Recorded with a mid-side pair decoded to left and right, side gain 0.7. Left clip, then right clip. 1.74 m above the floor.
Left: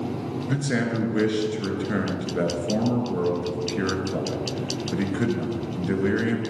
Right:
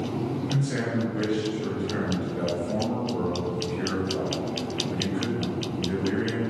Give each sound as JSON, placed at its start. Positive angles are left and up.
{"t": 0.5, "sound": "a man speaking", "azimuth_deg": 50, "distance_m": 2.0}